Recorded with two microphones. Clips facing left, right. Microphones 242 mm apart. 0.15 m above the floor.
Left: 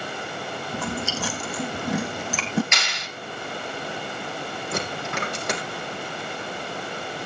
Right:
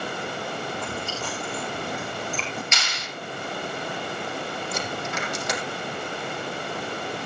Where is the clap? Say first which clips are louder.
Left 1 dB; 65° left (ahead or behind), 3 m.